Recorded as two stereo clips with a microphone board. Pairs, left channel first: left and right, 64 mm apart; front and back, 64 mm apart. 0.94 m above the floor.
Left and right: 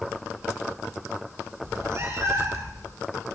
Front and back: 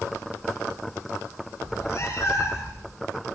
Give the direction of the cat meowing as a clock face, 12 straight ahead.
2 o'clock.